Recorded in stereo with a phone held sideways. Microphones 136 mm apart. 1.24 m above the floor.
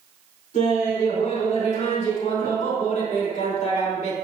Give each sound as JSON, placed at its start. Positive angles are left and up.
{"t": 0.5, "sound": "laughter", "side_deg": 80, "distance_m": 4.0}